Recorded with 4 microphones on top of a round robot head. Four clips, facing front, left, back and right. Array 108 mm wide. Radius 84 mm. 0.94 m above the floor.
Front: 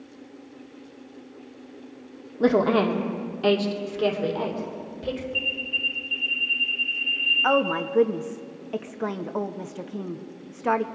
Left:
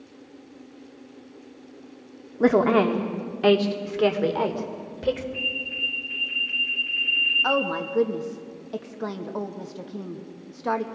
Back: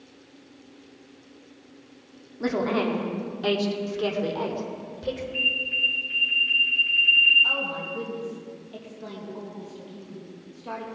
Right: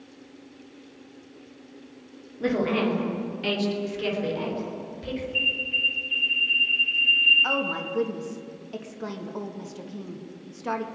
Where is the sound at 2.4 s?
60° left, 1.9 m; by 5.2 s 90° left, 3 m.